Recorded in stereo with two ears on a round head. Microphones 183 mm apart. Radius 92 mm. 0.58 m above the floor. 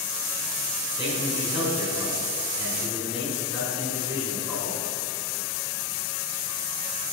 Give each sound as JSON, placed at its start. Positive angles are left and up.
{"t": 0.9, "sound": "a man speaking", "side_deg": -25, "distance_m": 5.0}